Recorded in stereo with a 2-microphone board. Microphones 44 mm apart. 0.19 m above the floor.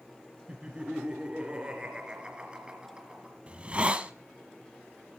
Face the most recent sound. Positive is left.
turn(degrees=-25)  # may be behind; listen again after turning